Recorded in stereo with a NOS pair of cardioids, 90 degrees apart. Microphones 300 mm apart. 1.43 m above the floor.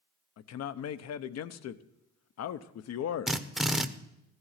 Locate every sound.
0.4 s a man speaking: 60° left, 0.9 m
3.3 s a drill: straight ahead, 0.9 m